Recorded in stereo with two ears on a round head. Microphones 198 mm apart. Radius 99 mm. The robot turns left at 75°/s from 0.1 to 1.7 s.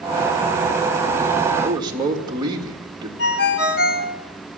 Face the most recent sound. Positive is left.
turn(degrees=55)  # may be behind; listen again after turning